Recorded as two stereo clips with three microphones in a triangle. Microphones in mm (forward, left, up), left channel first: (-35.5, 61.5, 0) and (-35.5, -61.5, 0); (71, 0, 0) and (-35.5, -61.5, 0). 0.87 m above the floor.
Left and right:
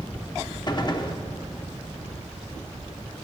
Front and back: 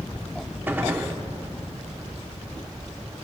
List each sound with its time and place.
0.7 s a gunshot: 140° left, 0.6 m